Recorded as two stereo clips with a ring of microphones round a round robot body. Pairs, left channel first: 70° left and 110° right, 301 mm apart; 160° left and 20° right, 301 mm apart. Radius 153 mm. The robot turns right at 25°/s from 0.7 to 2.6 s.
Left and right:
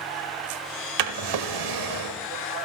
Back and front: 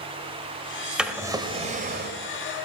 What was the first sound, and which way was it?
A drawer, 110° right.